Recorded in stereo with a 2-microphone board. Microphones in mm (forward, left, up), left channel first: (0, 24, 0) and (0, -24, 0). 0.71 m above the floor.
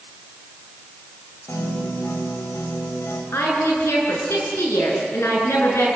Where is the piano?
75° left (ahead or behind), 3.5 m.